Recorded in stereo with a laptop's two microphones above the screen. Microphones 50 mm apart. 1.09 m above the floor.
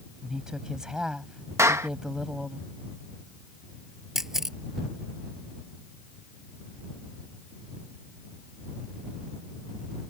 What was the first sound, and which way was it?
A woman speaking, 10° right (ahead or behind).